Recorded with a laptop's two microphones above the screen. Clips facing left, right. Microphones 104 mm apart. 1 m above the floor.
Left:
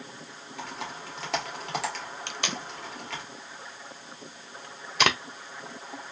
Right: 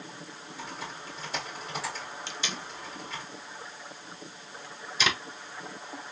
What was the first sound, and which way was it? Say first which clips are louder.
Typing on a keyboard: left 3 dB; 75° left (ahead or behind).